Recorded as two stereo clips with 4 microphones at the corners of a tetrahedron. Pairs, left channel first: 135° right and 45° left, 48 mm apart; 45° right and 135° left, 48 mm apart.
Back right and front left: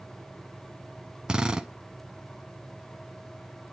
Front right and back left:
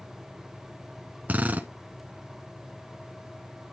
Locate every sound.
1.3 s a drill: 110° left, 0.8 m